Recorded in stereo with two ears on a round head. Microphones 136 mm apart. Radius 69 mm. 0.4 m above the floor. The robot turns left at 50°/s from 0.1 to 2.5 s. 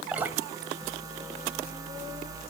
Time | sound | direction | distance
0.1 | dripping | 5° right (ahead or behind) | 1.3 m